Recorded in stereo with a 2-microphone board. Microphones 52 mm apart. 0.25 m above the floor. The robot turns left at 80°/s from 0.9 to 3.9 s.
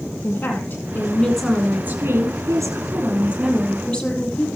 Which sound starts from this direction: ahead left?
A woman speaking, at 0.2 s.